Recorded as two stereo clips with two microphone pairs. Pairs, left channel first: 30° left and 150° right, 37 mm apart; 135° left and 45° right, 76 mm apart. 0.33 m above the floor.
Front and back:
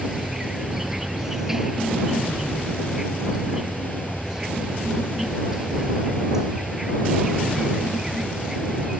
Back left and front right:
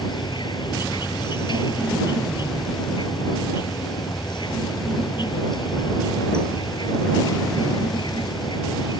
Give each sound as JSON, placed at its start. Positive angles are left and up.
{"t": 0.0, "sound": "an insect", "azimuth_deg": 135}